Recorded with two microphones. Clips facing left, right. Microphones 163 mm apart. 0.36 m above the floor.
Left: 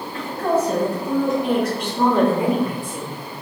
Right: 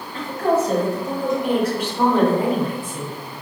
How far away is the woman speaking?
About 1.6 m.